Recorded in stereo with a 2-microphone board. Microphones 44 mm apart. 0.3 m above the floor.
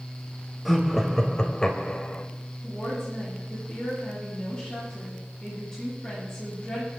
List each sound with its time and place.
0.7 s laughter: centre (ahead or behind), 1.4 m; by 2.3 s 30° left (ahead or behind), 1.4 m
2.6 s a woman speaking: 20° left (ahead or behind), 7 m